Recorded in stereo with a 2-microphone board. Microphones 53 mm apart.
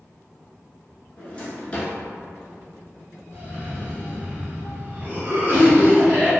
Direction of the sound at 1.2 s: 25° left (ahead or behind).